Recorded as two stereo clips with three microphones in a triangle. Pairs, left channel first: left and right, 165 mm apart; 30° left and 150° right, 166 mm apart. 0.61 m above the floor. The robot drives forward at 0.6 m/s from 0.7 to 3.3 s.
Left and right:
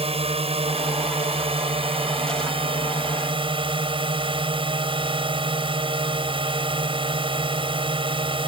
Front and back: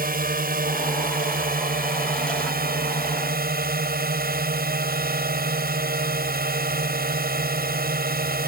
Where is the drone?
140° right; by 8.5 s 145° right.